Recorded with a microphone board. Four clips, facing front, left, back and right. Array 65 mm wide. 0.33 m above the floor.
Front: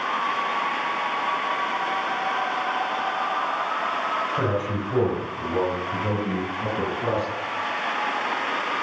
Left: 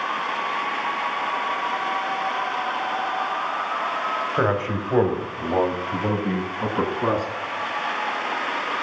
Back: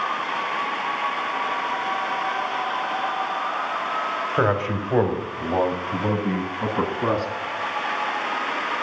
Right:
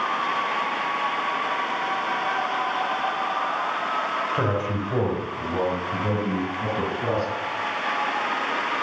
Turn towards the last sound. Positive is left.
turn(degrees=135)